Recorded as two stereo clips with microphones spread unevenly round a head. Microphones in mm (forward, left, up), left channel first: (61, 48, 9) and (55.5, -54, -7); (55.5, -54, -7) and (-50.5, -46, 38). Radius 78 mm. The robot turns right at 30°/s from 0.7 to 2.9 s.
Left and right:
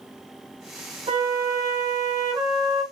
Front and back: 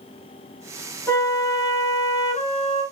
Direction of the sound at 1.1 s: 75° right.